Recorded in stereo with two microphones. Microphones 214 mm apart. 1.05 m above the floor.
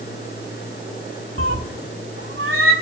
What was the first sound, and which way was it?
A cat meowing, 70° right (ahead or behind).